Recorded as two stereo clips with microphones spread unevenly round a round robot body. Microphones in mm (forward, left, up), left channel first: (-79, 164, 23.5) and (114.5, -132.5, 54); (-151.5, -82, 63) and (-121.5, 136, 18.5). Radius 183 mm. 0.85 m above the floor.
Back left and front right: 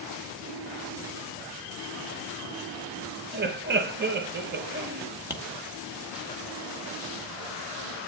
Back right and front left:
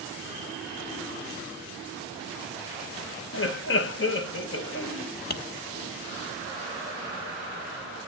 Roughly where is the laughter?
Behind right.